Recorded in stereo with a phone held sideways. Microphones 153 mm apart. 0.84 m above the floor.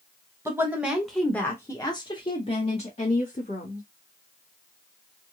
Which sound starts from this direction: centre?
A woman speaking, at 0.5 s.